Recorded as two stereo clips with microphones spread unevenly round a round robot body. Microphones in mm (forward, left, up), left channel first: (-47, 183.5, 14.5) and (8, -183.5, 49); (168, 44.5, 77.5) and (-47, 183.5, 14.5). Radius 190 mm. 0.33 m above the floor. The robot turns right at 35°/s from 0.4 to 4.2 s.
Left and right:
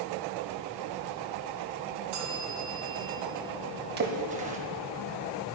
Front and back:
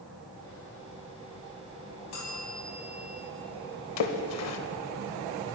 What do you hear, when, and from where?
2.1 s a bell: 65° right, 3.5 m; by 3.2 s 30° right, 3.5 m
4.0 s a splash: 20° right, 1.0 m; by 4.6 s 10° right, 1.0 m